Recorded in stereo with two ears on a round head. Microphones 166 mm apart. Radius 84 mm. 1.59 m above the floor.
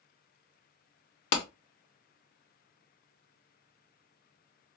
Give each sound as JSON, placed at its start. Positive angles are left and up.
{"t": 1.3, "sound": "a clap", "side_deg": 60, "distance_m": 0.9}